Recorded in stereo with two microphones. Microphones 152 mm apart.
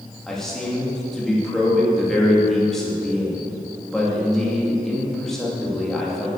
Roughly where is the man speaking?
Centre.